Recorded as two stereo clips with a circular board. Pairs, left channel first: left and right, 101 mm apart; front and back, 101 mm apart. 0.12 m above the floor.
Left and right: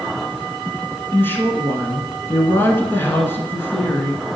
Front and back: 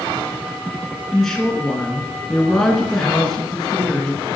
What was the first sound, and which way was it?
A woman speaking, 85° left.